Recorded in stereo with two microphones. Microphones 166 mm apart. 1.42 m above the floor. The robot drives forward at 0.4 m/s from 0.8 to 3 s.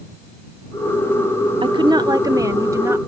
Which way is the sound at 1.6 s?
30° right (ahead or behind).